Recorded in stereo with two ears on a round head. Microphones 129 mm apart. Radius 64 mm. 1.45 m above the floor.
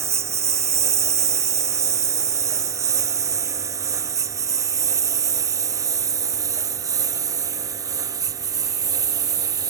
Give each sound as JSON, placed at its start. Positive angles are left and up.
{"t": 0.0, "sound": "a lawn mower", "side_deg": -20}